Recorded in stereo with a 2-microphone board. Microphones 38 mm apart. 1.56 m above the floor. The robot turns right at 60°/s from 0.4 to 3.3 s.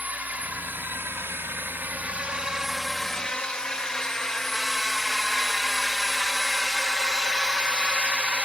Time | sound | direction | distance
0.0 | a drone | 40° right (ahead or behind) | ?